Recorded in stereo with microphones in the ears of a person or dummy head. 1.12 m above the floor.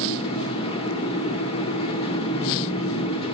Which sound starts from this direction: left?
A fan, at 0.0 s.